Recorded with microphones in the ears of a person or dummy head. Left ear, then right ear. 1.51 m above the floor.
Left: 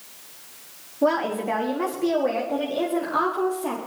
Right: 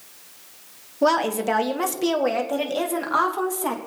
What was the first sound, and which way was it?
A woman speaking, 85° right.